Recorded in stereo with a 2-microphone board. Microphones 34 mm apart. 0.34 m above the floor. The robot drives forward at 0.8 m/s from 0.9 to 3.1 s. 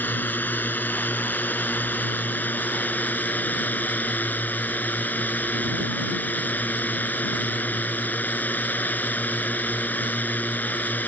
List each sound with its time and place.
0.0 s a drone: 75° left (ahead or behind); by 11.1 s 65° left (ahead or behind)